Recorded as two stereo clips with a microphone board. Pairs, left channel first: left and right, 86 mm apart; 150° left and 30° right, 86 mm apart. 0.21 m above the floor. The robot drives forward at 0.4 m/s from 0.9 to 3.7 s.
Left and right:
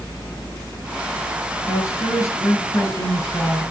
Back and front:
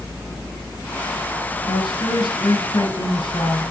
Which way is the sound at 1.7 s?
135° left.